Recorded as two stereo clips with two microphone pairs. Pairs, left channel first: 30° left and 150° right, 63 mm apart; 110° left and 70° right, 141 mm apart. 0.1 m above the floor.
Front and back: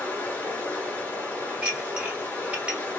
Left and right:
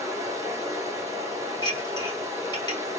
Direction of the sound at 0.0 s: 20° right.